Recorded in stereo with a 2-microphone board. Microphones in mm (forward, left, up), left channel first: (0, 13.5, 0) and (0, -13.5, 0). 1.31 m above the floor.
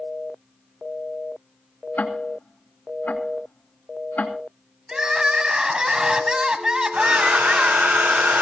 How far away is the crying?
About 2.0 m.